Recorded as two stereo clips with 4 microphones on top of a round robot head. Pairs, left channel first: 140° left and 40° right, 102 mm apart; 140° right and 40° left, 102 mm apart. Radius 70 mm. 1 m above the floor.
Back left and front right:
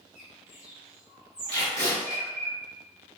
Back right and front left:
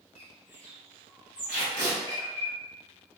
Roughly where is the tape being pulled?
Right.